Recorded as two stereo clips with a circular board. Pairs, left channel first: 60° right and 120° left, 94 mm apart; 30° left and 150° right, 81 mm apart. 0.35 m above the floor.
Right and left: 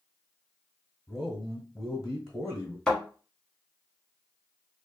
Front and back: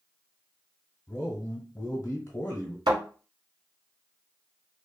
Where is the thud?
140° right, 1.3 m.